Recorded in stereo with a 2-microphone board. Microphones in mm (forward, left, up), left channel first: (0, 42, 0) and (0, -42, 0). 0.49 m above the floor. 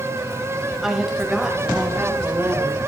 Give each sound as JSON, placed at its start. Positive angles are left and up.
{"t": 0.8, "sound": "a woman speaking", "side_deg": -5, "distance_m": 2.5}